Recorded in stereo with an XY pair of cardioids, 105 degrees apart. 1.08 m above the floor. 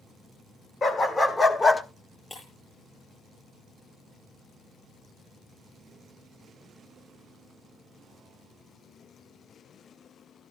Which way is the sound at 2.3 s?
20° left.